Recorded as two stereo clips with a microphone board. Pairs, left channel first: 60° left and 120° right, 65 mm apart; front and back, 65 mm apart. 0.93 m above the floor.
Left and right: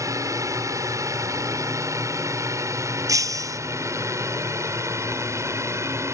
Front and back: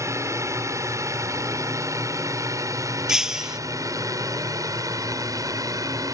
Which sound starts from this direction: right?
Breaking glass, at 3.1 s.